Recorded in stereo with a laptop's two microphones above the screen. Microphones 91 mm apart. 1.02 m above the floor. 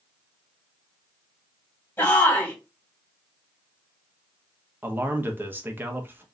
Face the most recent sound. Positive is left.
turn(degrees=-25)  # may be behind; listen again after turning